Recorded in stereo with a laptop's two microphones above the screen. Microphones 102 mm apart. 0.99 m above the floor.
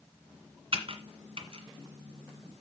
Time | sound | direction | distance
0.7 | typing on a keyboard | 65° right (ahead or behind) | 1.8 m